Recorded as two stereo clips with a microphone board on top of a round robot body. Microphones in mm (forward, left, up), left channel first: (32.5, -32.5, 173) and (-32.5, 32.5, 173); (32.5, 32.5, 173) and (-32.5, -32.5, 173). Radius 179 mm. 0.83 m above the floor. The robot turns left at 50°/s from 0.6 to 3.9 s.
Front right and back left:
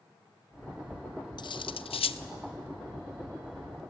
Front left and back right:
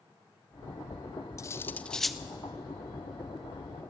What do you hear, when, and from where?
1.4 s cutlery clinking: 10° right, 0.6 m; by 2.2 s 50° right, 0.6 m